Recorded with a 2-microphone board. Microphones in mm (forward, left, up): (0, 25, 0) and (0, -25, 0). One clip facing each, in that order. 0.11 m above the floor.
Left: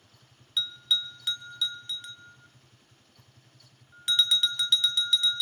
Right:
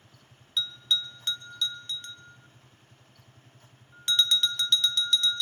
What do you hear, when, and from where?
0.6 s a bell: 5° left (ahead or behind), 0.9 m